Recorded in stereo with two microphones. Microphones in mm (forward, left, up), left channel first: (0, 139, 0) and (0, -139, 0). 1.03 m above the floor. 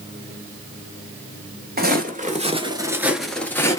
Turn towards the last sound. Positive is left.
turn(degrees=10)  # may be behind; listen again after turning